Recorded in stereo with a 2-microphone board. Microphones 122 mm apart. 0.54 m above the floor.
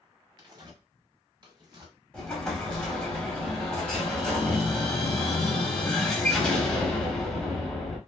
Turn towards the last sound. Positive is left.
turn(degrees=10)  # may be behind; listen again after turning